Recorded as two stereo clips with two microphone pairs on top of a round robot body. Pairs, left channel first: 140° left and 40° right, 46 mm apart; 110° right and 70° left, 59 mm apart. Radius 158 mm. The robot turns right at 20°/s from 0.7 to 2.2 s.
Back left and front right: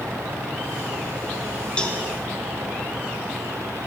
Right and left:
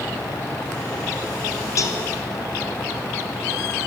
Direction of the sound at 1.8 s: 150° right.